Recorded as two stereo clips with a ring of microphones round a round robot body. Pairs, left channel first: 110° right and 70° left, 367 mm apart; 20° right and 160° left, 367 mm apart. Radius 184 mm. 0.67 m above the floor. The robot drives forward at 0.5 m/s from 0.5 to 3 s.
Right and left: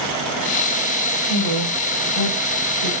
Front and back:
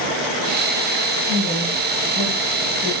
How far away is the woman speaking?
About 4 m.